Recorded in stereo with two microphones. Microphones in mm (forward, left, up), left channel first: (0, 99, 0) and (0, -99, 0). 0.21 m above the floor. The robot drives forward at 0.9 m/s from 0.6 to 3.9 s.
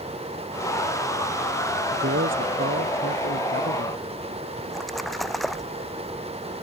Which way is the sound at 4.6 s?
Centre (ahead or behind).